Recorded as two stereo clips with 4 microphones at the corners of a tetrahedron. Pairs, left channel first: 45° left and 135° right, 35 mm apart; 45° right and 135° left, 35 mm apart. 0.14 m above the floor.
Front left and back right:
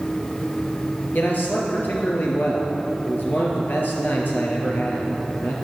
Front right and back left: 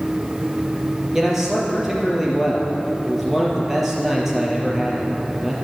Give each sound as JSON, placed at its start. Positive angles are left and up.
{"t": 1.1, "sound": "a man speaking", "azimuth_deg": 55, "distance_m": 3.0}